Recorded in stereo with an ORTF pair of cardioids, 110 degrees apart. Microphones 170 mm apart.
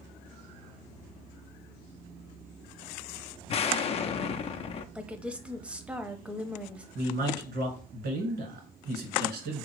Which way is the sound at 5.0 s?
5° right.